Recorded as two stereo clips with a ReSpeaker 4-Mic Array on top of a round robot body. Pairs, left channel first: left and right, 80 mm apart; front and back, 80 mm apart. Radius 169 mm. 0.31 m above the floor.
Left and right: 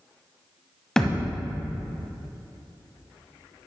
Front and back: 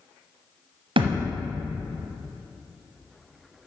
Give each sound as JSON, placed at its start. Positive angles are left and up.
{"t": 1.0, "sound": "a thud", "azimuth_deg": 175, "distance_m": 1.0}